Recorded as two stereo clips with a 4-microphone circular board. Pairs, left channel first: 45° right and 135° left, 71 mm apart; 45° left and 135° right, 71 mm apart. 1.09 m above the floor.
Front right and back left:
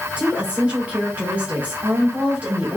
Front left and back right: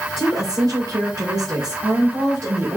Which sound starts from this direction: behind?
A woman speaking, at 0.2 s.